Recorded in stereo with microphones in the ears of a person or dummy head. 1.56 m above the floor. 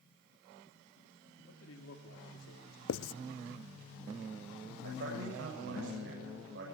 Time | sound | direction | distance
1.5 | a man speaking | 85° left | 3.5 m
2.9 | writing | 65° left (ahead or behind) | 0.7 m
4.8 | a man speaking | 65° right (ahead or behind) | 7.5 m